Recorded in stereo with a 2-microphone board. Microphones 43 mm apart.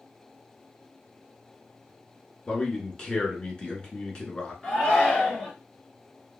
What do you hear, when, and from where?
2.5 s a man speaking: 25° left (ahead or behind), 1.1 m
4.6 s a shout: 20° left (ahead or behind), 1.8 m